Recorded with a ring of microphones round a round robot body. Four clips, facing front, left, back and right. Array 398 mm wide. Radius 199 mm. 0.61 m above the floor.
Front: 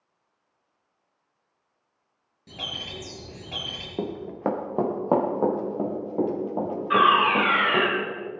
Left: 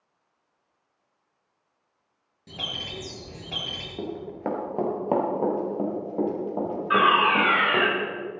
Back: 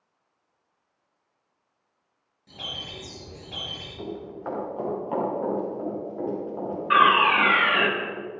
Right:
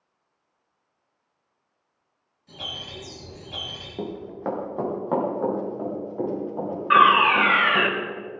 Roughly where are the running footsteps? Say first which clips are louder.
Even, front 6 dB; ahead.